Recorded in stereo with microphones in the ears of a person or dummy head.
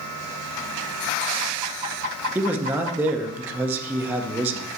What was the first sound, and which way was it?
A man speaking, 5° right (ahead or behind).